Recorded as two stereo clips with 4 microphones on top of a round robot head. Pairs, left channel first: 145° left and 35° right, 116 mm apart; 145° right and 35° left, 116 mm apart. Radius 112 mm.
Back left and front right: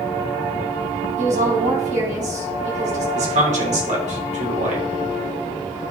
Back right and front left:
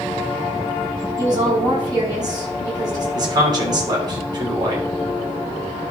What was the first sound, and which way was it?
A woman speaking, 20° right.